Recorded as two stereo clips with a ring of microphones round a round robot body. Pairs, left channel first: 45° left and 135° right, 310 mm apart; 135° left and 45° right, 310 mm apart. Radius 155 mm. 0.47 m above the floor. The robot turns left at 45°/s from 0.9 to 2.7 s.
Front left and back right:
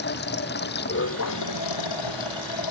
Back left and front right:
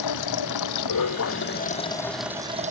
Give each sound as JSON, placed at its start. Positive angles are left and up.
{"t": 0.0, "sound": "running water", "azimuth_deg": 105}